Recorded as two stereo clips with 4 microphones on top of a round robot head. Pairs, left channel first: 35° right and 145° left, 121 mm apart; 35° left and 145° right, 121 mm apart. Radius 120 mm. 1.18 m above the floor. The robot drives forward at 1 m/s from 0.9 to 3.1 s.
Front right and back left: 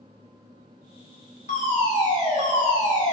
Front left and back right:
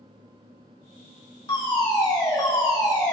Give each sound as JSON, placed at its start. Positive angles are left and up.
{"t": 1.5, "sound": "a fire alarm", "azimuth_deg": -20, "distance_m": 6.5}